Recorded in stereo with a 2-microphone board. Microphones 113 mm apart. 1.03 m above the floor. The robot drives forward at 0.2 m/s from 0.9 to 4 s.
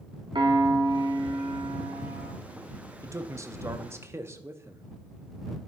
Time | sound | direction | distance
0.3 | a piano | 45° right (ahead or behind) | 0.9 m
3.0 | a man speaking | 30° right (ahead or behind) | 0.6 m